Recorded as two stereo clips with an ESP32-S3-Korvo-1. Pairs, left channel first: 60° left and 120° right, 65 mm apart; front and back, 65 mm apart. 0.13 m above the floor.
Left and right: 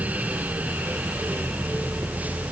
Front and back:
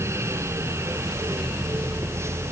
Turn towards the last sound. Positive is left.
No sound to turn to.